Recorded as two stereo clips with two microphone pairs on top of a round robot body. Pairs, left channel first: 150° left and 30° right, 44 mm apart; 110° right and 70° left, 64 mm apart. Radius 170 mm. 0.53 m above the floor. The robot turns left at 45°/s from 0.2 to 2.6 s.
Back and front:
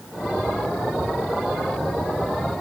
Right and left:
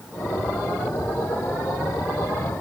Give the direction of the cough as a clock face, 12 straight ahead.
I don't hear a cough.